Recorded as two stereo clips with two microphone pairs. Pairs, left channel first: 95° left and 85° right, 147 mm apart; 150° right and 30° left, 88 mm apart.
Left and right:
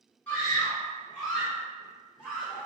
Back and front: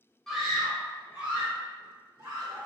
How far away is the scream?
About 1.4 m.